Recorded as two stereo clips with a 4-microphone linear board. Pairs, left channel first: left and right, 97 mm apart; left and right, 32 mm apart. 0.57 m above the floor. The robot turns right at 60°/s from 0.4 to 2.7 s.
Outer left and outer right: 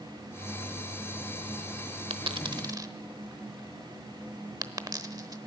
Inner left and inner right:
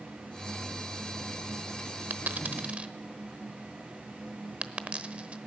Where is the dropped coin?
75° right (ahead or behind), 0.9 m; by 5.4 s 40° right (ahead or behind), 0.9 m.